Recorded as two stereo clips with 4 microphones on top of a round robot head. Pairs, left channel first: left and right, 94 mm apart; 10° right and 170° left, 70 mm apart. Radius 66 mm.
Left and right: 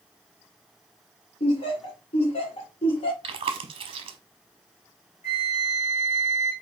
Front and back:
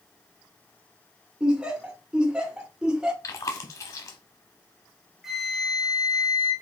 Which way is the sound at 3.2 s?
55° right.